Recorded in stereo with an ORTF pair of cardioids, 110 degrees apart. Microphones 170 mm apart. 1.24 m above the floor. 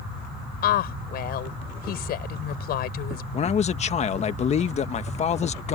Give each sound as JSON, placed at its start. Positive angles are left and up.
{"t": 0.6, "sound": "a woman speaking", "azimuth_deg": 70}
{"t": 3.3, "sound": "a man speaking", "azimuth_deg": 40}